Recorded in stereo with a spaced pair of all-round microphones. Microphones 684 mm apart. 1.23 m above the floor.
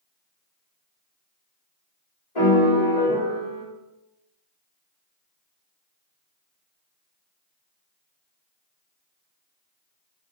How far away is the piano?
About 4 m.